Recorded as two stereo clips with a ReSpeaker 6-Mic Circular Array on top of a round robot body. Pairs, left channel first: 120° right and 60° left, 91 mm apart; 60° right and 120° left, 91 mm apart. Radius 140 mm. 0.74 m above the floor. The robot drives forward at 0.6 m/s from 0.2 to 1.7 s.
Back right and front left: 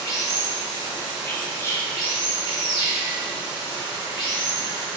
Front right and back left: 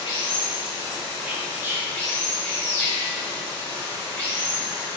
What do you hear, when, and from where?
0.0 s running water: 80° right, 1.1 m; by 5.0 s 130° right, 1.3 m
1.2 s whispering: 175° right, 0.6 m